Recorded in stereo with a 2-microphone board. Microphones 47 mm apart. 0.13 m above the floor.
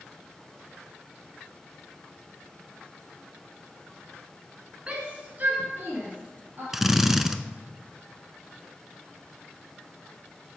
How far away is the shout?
About 1.5 m.